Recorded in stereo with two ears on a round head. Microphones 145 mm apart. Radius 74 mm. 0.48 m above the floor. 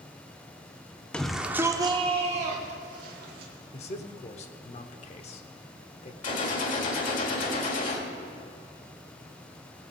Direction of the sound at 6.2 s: 50° left (ahead or behind).